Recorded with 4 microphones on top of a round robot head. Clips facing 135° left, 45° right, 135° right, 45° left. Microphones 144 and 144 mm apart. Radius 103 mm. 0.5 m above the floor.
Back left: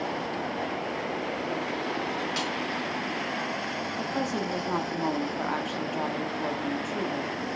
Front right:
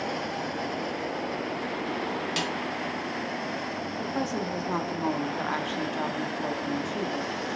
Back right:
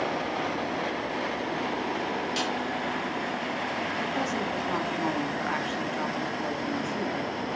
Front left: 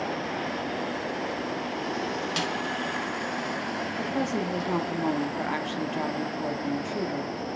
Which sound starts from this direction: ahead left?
A woman speaking, at 4.0 s.